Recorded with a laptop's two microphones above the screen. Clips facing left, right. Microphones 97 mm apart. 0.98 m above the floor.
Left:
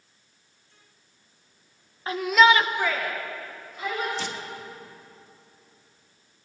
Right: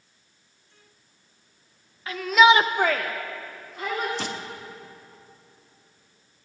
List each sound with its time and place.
2.1 s a shout: 30° left (ahead or behind), 0.7 m; by 4.1 s 70° right (ahead or behind), 2 m
4.2 s crushing: 55° right (ahead or behind), 1.1 m